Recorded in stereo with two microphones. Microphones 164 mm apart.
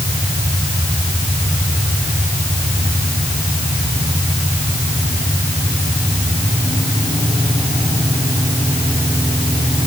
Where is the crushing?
No crushing in this recording.